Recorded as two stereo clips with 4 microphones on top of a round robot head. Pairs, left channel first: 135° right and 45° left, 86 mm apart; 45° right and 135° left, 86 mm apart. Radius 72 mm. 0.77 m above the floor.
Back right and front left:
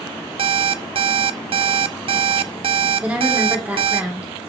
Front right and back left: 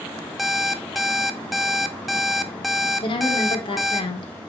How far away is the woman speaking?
About 2.5 m.